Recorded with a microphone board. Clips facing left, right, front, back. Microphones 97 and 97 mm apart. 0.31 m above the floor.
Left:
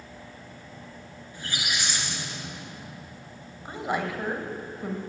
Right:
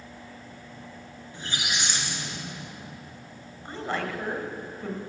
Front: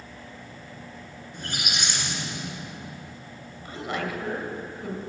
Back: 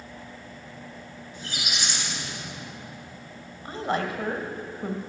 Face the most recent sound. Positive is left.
turn(degrees=155)